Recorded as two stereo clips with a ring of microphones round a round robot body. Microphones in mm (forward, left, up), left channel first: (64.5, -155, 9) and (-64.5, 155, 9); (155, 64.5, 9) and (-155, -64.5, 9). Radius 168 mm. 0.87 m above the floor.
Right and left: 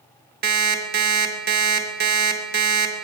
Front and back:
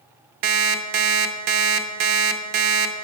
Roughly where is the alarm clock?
Behind.